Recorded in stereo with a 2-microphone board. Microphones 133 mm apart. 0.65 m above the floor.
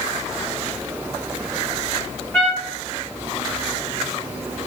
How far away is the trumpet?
About 1.7 m.